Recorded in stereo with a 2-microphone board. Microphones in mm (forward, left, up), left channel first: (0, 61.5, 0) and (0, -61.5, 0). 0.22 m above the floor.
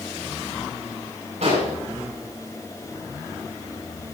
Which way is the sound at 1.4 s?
65° right (ahead or behind).